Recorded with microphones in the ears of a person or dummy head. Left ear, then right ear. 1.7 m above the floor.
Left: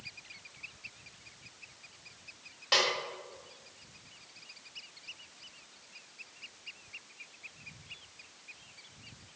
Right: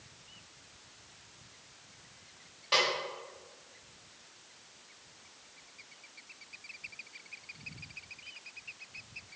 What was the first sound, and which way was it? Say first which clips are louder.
A snare drum: left 1 dB; 20° left (ahead or behind).